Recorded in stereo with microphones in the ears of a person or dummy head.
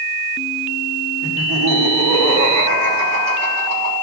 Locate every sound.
1.2 s laughter: 70° right (ahead or behind), 2 m; by 3.9 s 90° right, 4 m